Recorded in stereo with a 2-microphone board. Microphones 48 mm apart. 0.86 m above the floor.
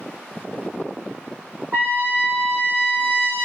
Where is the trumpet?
45° right (ahead or behind), 1.7 m.